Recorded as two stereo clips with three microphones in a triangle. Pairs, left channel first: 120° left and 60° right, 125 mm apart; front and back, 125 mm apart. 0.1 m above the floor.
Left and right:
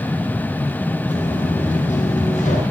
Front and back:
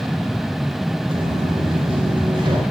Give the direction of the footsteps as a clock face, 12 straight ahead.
8 o'clock.